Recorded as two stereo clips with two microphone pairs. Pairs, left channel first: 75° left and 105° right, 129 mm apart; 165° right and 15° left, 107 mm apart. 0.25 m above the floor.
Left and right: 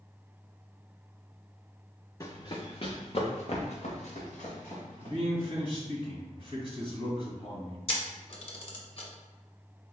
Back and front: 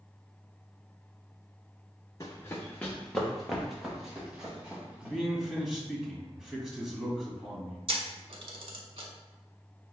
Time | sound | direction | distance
2.2 | running footsteps | 140° left | 0.9 m
5.0 | a man speaking | 100° left | 1.9 m
7.9 | a camera shutter | 35° left | 1.1 m